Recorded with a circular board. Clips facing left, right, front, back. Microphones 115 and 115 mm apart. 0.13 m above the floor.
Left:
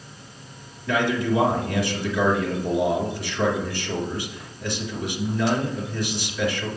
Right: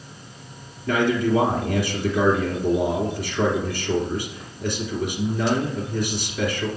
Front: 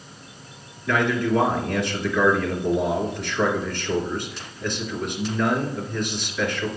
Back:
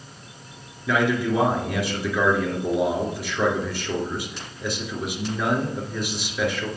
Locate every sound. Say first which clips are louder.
0.9 s a man speaking: right 2 dB, even; 100° right, 2 m